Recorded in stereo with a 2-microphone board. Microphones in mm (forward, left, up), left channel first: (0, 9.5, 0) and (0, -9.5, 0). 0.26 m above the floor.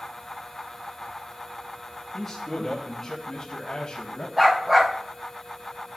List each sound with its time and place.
2.1 s a man speaking: centre (ahead or behind), 2.5 m; by 4.3 s 45° left (ahead or behind), 2 m
4.4 s a dog barking: 25° right (ahead or behind), 3.5 m